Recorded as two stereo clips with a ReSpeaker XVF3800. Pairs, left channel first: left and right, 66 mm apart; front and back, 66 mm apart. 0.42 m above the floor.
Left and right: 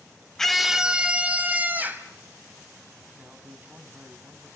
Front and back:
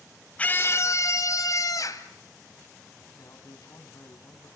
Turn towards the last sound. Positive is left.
turn(degrees=-25)